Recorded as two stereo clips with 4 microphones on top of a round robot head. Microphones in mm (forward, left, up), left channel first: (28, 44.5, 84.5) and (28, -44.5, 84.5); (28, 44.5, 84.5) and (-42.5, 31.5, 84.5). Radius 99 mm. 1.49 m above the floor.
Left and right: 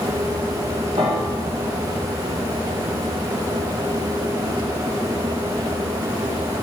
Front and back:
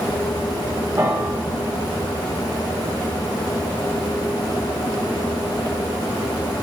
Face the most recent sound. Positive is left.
turn(degrees=-110)